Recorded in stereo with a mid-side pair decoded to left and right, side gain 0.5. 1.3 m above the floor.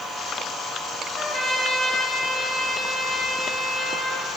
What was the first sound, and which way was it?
A trumpet, 15° left.